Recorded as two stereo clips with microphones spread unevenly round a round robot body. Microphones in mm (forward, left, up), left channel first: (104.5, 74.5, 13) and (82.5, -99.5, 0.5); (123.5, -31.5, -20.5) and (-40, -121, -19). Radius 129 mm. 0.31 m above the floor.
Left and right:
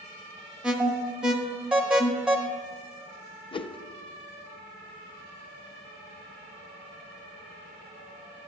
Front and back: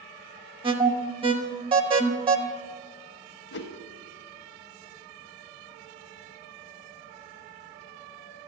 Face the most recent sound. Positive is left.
turn(degrees=20)